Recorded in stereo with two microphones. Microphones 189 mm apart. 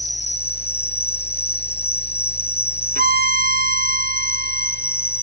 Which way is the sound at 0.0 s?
30° left (ahead or behind).